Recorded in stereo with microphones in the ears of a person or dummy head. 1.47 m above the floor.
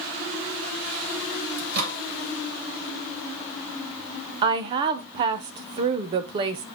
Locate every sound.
1.6 s a microwave: 55° right (ahead or behind), 2.5 m
4.4 s a woman speaking: 30° right (ahead or behind), 0.5 m